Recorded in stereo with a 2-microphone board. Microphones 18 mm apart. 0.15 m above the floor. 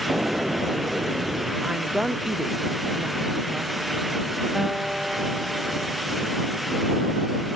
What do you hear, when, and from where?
0.1 s an explosion: 65° right (ahead or behind)
1.6 s a woman speaking: 35° right (ahead or behind)
4.5 s a guitar: 20° right (ahead or behind)